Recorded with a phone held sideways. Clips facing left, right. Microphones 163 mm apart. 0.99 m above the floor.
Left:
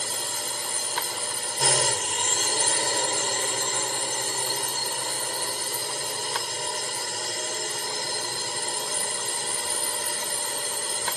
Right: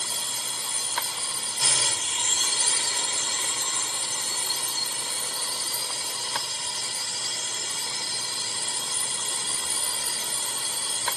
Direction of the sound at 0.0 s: 55° left (ahead or behind).